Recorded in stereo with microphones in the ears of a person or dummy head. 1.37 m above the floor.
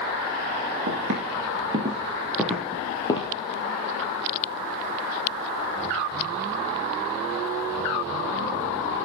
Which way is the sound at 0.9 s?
35° right (ahead or behind).